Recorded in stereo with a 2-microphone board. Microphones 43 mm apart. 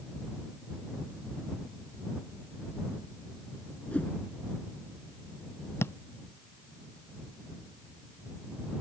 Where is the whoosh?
35° left (ahead or behind).